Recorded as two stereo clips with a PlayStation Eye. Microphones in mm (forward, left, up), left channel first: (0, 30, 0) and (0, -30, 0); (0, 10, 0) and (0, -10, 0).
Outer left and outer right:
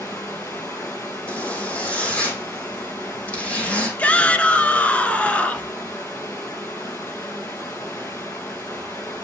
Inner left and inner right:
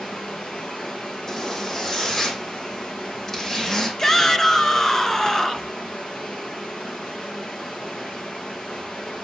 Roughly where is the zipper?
Left.